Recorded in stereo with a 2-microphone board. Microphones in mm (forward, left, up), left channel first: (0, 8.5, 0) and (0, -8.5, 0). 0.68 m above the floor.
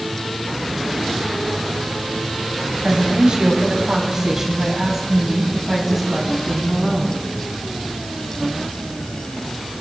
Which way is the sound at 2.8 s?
60° right (ahead or behind).